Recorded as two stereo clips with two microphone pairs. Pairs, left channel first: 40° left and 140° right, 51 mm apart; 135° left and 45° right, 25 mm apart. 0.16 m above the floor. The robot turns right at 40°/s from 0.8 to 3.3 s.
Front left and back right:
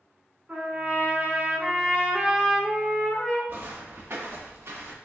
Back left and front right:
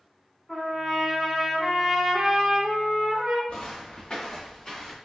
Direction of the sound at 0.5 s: 160° right.